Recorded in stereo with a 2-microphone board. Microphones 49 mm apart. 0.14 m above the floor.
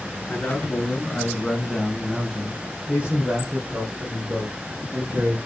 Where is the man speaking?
30° left (ahead or behind), 1.7 m; by 5.4 s 45° right (ahead or behind), 3 m.